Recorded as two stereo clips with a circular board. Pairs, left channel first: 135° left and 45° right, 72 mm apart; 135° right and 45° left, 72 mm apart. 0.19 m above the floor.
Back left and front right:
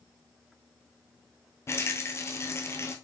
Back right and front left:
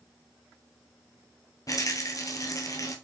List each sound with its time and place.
1.7 s a rattle: 175° right, 1.0 m